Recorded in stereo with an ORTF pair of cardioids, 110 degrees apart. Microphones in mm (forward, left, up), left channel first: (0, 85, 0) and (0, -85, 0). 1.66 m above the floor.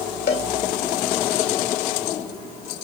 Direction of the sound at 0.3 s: 65° left.